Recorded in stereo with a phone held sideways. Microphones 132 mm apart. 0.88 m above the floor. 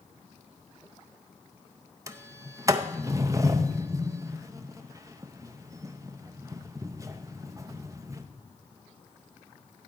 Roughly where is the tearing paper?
No tearing paper in this recording.